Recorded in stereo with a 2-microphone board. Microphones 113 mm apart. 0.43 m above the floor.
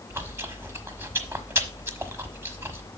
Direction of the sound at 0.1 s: 20° right (ahead or behind).